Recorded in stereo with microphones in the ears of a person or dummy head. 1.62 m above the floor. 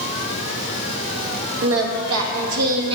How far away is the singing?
About 0.8 m.